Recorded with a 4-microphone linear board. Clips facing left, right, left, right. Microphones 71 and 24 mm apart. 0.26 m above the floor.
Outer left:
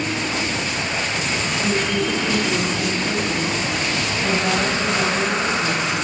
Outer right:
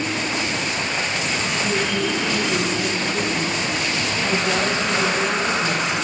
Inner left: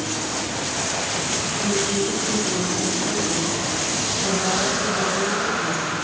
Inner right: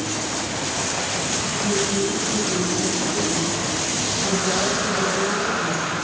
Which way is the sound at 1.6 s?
60° left (ahead or behind).